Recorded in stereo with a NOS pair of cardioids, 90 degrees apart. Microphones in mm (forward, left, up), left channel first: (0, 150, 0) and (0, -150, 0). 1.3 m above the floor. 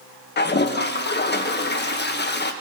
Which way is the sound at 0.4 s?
35° left.